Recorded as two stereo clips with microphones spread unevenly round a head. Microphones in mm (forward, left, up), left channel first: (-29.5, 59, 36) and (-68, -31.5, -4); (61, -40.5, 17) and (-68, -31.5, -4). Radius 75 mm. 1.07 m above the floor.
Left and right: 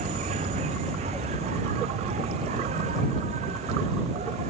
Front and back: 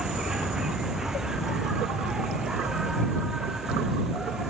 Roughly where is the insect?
Right.